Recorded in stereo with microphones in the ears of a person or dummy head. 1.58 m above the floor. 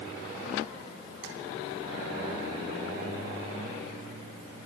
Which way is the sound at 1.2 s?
80° right.